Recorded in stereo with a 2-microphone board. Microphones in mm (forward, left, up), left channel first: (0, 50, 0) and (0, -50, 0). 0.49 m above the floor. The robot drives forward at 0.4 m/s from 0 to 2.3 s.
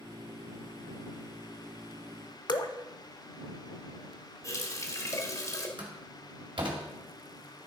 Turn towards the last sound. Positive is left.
turn(degrees=-60)  # may be behind; listen again after turning